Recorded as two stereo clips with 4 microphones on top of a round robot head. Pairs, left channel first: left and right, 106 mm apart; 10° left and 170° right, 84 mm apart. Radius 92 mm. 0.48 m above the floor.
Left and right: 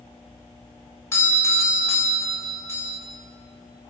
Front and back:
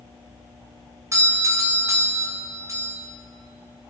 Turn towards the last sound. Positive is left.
turn(degrees=150)